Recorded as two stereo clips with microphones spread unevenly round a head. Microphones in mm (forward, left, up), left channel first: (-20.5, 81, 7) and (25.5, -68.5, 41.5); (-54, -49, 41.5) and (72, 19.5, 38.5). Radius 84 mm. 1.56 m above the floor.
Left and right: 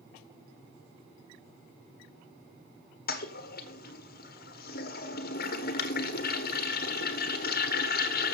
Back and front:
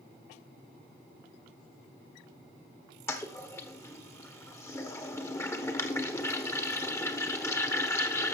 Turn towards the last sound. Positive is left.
turn(degrees=135)